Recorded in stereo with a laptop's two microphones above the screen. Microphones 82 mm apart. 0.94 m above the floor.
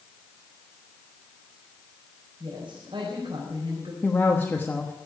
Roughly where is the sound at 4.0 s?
Left.